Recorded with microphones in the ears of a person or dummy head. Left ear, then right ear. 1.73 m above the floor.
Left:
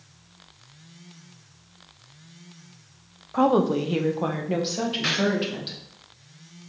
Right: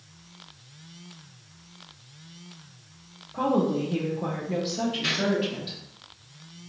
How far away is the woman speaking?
About 0.5 m.